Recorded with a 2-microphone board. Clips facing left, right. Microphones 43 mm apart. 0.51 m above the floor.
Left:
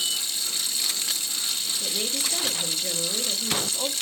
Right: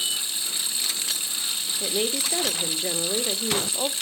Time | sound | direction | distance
0.0 | running water | 25° right (ahead or behind) | 1.7 m
1.8 | a woman speaking | 40° right (ahead or behind) | 1.2 m